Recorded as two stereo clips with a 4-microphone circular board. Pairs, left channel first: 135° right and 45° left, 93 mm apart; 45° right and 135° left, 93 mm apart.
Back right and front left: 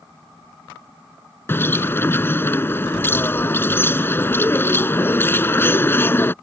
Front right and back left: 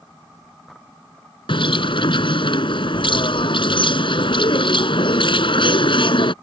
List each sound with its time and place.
1.5 s a bird: 70° right